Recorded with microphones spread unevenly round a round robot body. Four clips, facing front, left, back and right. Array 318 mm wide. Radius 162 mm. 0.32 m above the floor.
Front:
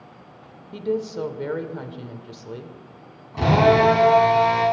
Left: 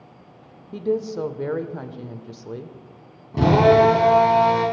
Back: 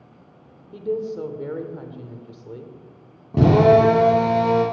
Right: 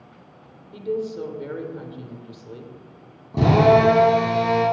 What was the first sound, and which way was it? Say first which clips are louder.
A woman speaking: left 3 dB, even; 60° left.